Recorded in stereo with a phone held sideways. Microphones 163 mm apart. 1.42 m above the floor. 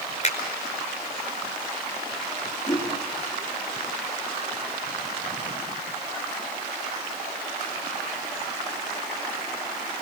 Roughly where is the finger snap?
Left.